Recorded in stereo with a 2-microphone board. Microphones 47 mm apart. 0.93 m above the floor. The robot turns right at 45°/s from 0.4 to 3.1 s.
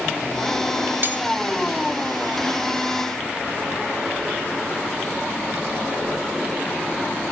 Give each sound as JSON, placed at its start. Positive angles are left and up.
{"t": 1.0, "sound": "cutlery clinking", "side_deg": -45, "distance_m": 1.3}